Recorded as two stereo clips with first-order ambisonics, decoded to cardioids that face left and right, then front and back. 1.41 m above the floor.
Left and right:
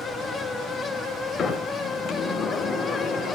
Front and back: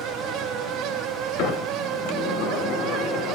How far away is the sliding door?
About 4 m.